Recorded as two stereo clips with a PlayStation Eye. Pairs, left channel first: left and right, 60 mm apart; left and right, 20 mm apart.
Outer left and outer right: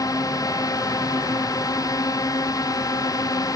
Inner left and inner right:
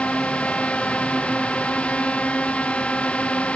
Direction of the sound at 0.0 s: 80° left.